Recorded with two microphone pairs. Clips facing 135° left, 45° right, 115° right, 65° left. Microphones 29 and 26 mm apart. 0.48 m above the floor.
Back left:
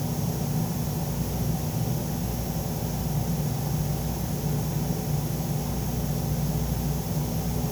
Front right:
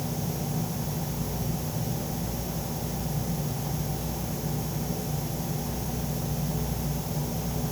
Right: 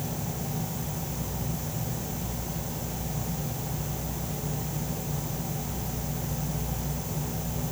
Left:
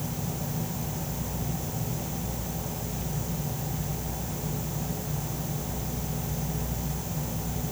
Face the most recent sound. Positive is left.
No sound to turn to.